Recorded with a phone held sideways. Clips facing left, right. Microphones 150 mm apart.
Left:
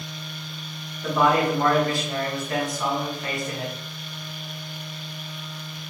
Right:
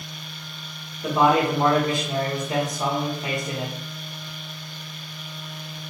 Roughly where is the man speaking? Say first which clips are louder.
Right 1 dB; centre.